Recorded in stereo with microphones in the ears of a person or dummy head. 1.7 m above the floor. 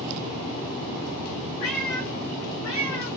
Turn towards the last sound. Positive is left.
turn(degrees=25)  # may be behind; listen again after turning